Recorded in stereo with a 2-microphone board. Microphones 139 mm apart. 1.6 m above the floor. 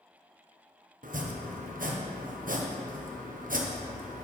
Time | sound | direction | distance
1.0 | chopping | 80° right | 1.1 m